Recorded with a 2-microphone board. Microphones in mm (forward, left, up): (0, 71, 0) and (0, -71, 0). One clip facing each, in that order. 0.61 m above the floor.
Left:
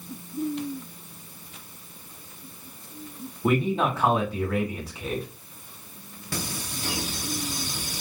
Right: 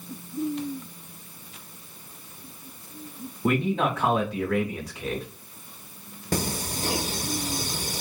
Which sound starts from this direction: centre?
A man speaking, at 3.4 s.